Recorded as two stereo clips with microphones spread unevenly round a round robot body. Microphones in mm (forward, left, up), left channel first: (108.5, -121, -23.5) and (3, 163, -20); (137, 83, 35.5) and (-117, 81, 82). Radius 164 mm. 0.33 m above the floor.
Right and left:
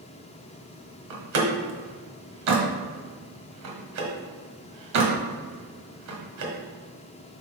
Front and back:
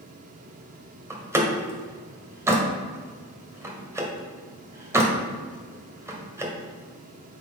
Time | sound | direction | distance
1.1 | a door slam | 95° left | 1.5 m